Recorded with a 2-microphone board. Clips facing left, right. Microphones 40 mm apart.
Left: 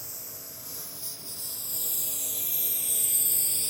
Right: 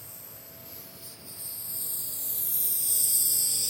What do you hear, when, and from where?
0.0 s a lawn mower: 85° left; by 3.7 s 20° left (ahead or behind)